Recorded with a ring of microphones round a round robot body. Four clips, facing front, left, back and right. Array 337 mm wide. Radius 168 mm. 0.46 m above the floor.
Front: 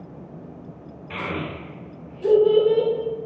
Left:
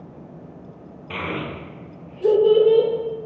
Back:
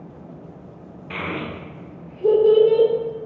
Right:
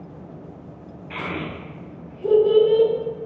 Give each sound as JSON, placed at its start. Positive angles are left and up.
{"t": 1.1, "sound": "a child speaking", "azimuth_deg": 125, "distance_m": 0.8}